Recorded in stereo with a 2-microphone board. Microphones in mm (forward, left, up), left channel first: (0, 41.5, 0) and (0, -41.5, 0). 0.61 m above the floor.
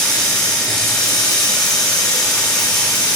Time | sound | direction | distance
0.0 | running water | 10° left (ahead or behind) | 6.5 m